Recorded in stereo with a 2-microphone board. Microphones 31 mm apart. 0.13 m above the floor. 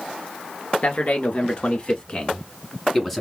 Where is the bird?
No bird in this recording.